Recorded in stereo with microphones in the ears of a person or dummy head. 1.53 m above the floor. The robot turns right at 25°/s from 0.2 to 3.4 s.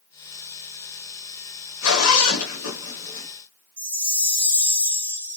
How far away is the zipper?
About 1.1 m.